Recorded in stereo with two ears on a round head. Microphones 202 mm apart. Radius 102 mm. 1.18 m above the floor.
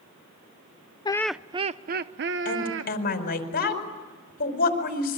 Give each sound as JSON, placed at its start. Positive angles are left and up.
{"t": 1.1, "sound": "laughter", "side_deg": 20, "distance_m": 0.5}
{"t": 2.5, "sound": "a woman speaking", "side_deg": 45, "distance_m": 5.0}